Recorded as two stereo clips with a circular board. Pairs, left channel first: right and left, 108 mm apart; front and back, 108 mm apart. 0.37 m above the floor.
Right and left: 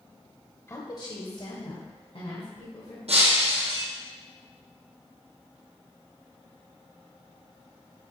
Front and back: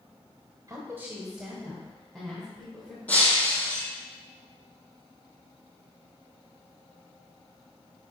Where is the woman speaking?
145° right, 1.1 m; by 3.0 s 80° right, 3 m.